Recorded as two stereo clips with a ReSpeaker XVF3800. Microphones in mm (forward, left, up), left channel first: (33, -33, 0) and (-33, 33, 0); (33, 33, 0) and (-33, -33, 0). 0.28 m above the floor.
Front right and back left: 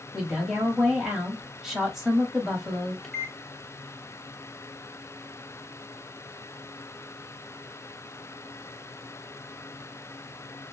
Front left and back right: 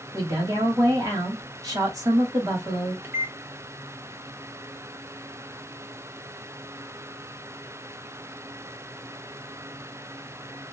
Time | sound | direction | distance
0.1 | a woman speaking | 140° right | 1.4 m
3.0 | a microwave | 120° right | 0.8 m